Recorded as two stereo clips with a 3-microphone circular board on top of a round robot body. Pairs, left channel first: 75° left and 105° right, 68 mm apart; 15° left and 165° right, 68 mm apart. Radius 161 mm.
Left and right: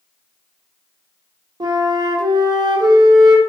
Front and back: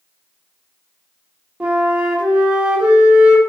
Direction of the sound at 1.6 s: 90° right.